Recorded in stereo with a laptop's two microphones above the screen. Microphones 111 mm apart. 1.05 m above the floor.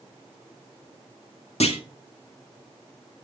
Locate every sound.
1.6 s a clunk: 70° left (ahead or behind), 1.9 m